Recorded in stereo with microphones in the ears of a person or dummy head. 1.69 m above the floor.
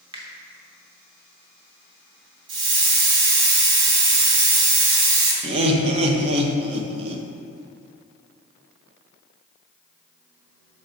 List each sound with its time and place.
0.1 s a finger snap: 30° right (ahead or behind), 0.9 m
2.5 s a hiss: 25° right (ahead or behind), 1.4 m
5.4 s laughter: 35° right (ahead or behind), 0.9 m